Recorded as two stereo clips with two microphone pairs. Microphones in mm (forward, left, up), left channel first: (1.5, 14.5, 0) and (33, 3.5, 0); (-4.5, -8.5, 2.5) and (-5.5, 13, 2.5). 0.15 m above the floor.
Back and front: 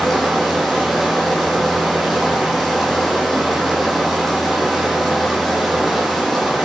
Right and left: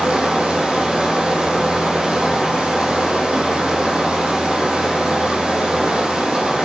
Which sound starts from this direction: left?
Running water, at 0.0 s.